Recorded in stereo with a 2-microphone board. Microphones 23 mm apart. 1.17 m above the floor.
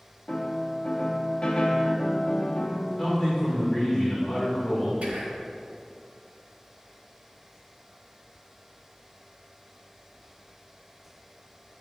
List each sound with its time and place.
0.3 s a piano: 40° left (ahead or behind), 0.6 m
3.0 s a man speaking: 10° left (ahead or behind), 1.7 m
5.0 s whispering: 70° right (ahead or behind), 1.5 m